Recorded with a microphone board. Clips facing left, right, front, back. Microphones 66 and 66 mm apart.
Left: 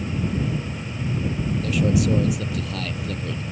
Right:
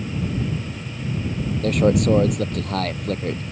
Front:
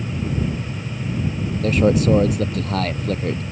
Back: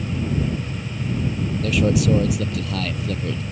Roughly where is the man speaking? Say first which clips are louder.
Right 5 dB, front 3 dB; ahead right.